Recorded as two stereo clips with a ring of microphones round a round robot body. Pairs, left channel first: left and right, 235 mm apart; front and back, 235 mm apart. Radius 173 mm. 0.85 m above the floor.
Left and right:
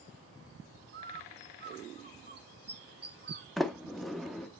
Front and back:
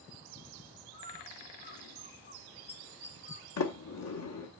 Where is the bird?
55° right, 1.1 m.